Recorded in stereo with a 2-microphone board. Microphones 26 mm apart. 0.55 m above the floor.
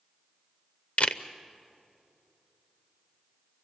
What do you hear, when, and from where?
1.0 s a camera shutter: 55° left (ahead or behind), 0.7 m